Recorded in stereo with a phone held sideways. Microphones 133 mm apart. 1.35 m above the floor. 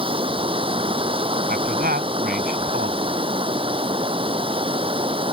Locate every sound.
0.0 s running water: 40° right (ahead or behind)
1.5 s a man speaking: 90° right